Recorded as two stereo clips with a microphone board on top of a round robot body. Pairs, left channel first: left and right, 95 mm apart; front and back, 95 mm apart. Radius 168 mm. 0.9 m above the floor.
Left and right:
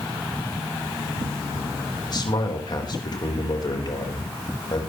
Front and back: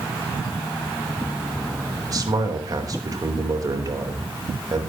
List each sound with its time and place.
2.1 s a man speaking: 130° left, 4 m